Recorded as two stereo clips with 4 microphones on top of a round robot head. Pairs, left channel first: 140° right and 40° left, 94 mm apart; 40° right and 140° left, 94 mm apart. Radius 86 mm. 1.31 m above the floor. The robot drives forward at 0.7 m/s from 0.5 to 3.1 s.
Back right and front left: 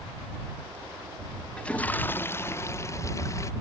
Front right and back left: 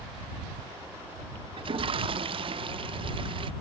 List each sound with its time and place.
1.6 s a toilet flushing: 140° left; by 3.5 s 165° left